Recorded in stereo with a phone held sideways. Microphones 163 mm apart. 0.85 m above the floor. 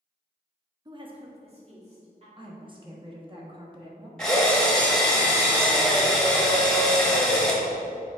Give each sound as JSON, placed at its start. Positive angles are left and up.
{"t": 0.8, "sound": "a woman speaking", "side_deg": -25, "distance_m": 0.6}
{"t": 2.4, "sound": "a woman speaking", "side_deg": -30, "distance_m": 1.2}
{"t": 4.2, "sound": "a drill", "side_deg": 5, "distance_m": 1.3}